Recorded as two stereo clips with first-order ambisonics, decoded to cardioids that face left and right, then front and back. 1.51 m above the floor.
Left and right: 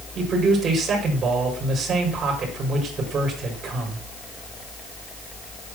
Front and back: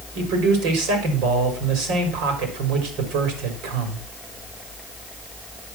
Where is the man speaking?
155° right, 5 m.